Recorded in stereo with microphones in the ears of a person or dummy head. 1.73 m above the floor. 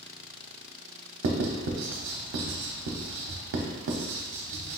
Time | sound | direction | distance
1.2 | writing | 60° right (ahead or behind) | 0.7 m